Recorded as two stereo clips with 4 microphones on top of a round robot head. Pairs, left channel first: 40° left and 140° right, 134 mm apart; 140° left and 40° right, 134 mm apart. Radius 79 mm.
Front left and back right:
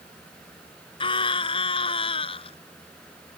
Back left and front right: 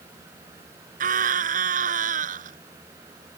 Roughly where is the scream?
Ahead.